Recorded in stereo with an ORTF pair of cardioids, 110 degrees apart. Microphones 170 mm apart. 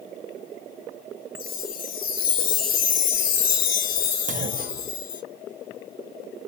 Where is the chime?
50° left, 1.0 m.